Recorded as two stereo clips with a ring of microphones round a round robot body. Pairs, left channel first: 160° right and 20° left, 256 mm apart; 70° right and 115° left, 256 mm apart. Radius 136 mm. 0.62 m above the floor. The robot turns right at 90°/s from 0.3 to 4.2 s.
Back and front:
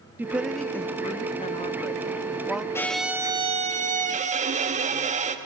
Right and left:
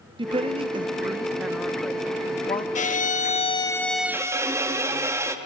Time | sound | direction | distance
0.2 | a woman speaking | 90° left | 0.8 m
2.8 | a violin | 85° right | 1.1 m